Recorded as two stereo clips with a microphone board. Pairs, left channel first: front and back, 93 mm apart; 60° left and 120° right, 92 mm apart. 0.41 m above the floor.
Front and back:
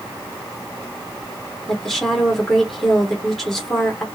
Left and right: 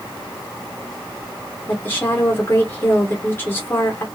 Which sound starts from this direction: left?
A woman speaking, at 1.7 s.